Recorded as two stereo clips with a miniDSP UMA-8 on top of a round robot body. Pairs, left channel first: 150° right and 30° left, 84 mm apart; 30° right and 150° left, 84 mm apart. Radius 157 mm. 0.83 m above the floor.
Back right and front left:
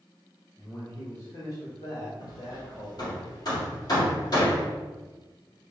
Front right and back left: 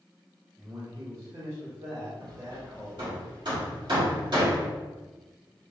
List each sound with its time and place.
0.6 s a man speaking: 165° left, 1.3 m; by 3.2 s 145° right, 2 m
2.2 s hammering: 175° left, 2 m